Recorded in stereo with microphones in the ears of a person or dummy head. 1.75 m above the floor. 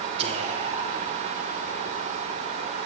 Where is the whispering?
35° right (ahead or behind), 1.1 m.